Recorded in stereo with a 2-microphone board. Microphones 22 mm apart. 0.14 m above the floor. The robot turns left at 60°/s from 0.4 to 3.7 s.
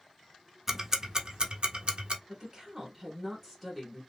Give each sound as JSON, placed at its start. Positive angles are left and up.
{"t": 0.7, "sound": "ticking", "side_deg": -10, "distance_m": 0.6}
{"t": 2.3, "sound": "a woman speaking", "azimuth_deg": -75, "distance_m": 1.5}